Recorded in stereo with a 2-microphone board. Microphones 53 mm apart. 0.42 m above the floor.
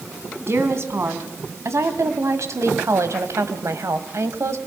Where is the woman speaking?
50° right (ahead or behind), 3 m; by 4.6 s 55° right (ahead or behind), 1.9 m.